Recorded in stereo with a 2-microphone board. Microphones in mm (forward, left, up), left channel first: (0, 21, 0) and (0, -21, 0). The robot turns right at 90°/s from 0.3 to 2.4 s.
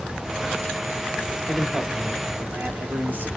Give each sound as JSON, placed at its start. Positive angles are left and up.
{"t": 1.5, "sound": "a man speaking", "azimuth_deg": 165, "distance_m": 1.0}